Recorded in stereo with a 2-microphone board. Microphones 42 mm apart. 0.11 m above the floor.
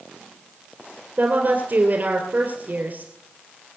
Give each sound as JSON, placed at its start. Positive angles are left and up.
{"t": 1.2, "sound": "a woman speaking", "side_deg": -45, "distance_m": 2.5}